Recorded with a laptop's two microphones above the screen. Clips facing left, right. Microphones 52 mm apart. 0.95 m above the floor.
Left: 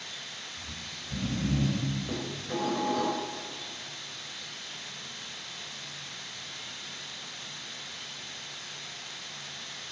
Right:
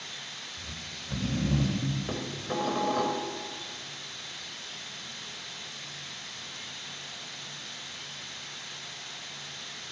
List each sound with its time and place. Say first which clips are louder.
0.6 s snoring: even; 80° right, 3 m
2.1 s dishes clattering: right 1 dB; 30° right (ahead or behind), 2.5 m